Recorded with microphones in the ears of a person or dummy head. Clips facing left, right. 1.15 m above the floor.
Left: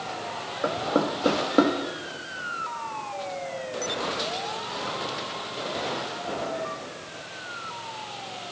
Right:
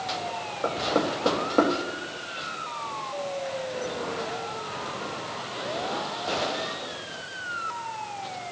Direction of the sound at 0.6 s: 20° left (ahead or behind).